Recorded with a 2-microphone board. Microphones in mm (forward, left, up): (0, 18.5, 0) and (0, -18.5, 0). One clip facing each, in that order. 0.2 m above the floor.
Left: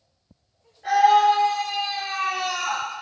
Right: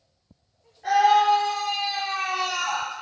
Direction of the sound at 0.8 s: 5° left (ahead or behind).